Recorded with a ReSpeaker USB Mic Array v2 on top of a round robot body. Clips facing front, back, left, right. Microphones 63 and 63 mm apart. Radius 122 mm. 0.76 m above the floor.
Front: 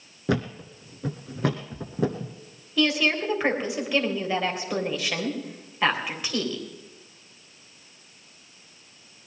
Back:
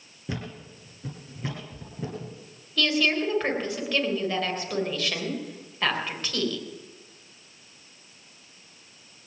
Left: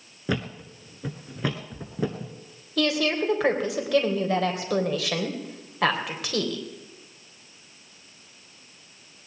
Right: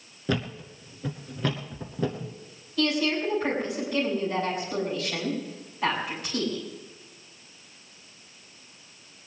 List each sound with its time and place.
0.3 s a thud: 10° left, 0.7 m
2.8 s a woman speaking: 80° left, 3.5 m